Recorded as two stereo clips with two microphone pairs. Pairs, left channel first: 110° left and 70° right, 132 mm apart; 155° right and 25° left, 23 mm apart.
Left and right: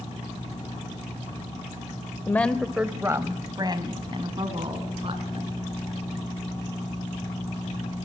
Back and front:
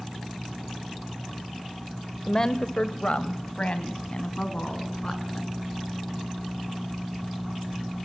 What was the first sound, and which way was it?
A woman speaking, 160° left.